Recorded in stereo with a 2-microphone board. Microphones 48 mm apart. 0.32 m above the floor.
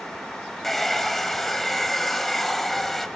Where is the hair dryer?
5° left (ahead or behind), 1.3 m.